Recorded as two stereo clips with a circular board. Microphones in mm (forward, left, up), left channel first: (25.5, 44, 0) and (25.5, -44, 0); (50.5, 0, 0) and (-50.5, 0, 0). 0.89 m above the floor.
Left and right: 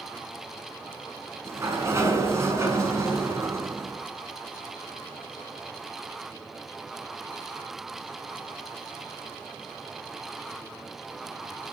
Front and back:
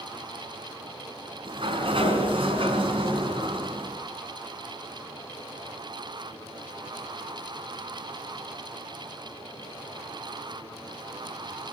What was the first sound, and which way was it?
A sliding door, 150° right.